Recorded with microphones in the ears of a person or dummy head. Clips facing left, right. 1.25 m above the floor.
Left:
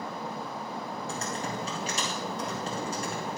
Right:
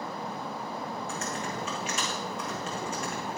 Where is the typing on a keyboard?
30° left (ahead or behind), 1.9 m.